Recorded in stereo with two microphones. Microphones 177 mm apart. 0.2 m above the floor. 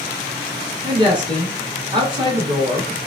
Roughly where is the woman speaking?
Right.